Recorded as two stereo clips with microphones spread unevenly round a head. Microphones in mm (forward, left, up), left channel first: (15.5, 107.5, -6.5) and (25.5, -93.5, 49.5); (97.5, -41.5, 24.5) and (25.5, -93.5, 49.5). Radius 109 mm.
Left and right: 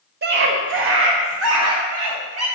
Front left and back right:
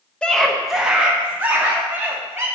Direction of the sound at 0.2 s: 40° right.